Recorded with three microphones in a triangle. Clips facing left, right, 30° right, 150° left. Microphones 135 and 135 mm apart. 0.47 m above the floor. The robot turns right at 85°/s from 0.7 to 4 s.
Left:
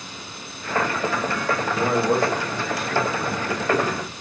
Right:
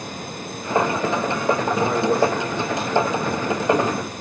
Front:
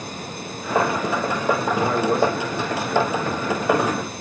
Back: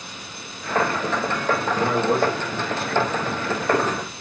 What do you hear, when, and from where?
1.6 s a man speaking: 80° left, 1.5 m; by 4.1 s 80° right, 1.5 m